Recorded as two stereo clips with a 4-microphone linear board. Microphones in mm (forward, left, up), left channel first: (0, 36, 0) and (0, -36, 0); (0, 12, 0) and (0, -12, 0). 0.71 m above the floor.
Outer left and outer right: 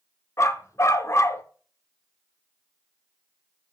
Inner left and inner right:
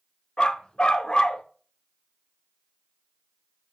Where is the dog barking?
40° left (ahead or behind), 0.5 m.